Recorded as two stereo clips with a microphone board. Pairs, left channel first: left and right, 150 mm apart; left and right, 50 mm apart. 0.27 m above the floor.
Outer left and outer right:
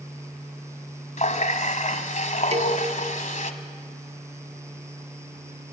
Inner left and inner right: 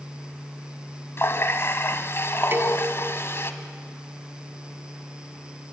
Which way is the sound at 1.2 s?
55° left (ahead or behind).